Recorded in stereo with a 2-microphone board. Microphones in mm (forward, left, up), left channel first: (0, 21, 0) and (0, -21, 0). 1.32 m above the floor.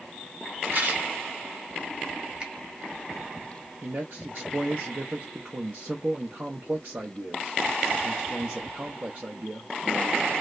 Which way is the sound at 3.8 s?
55° right (ahead or behind).